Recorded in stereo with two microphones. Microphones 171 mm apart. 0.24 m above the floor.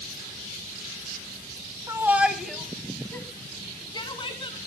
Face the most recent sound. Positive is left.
turn(degrees=35)  # may be behind; listen again after turning